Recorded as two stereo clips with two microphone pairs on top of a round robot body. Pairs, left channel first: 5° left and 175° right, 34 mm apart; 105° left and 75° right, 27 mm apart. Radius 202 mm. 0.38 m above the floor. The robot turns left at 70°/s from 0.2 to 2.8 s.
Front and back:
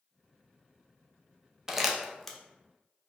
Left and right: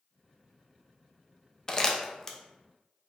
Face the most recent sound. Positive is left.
turn(degrees=35)